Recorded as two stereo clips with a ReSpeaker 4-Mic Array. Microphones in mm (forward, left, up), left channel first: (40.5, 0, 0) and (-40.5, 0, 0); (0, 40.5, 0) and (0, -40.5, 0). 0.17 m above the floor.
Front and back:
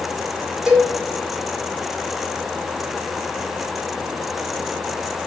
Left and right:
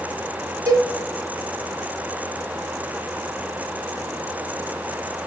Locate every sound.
0.7 s a cowbell: 100° right, 0.7 m